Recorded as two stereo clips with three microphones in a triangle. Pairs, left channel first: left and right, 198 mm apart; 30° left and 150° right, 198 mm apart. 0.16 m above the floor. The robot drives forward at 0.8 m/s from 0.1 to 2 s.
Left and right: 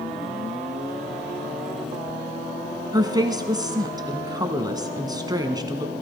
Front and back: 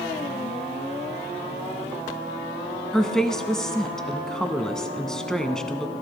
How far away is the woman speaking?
About 1.2 m.